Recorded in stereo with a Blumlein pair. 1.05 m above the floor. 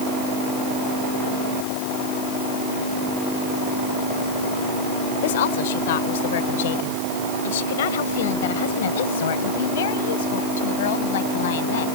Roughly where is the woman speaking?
Ahead left.